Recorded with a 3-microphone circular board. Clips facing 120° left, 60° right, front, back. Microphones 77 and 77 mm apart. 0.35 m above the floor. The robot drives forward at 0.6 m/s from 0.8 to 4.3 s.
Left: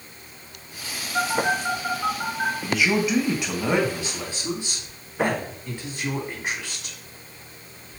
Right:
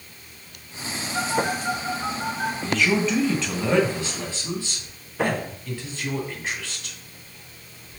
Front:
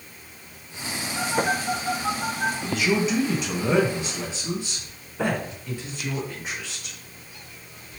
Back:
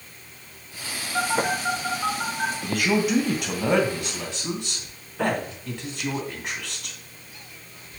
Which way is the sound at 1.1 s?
170° right.